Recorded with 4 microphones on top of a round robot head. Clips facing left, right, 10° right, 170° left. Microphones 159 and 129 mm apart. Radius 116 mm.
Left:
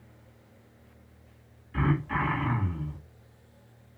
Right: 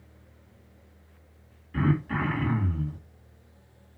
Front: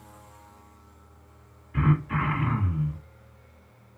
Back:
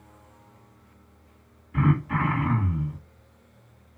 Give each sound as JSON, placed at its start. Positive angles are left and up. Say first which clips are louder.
{"t": 1.7, "sound": "throat clearing", "louder": "right 2 dB, back 2 dB", "azimuth_deg": -135, "distance_m": 1.6}